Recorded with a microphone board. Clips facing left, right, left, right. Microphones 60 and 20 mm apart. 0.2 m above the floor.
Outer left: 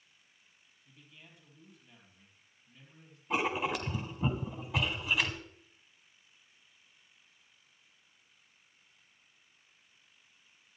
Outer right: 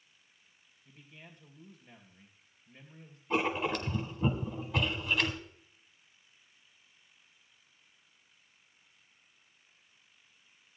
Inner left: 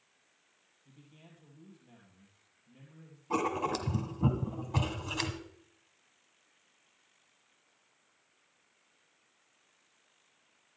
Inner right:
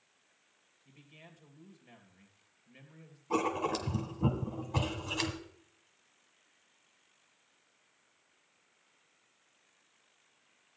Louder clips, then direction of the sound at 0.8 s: Outer right 4 dB, inner right 2 dB; 50° right (ahead or behind).